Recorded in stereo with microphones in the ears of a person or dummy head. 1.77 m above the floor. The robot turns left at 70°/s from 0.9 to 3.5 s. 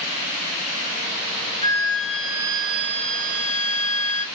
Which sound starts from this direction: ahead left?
A flute, at 1.6 s.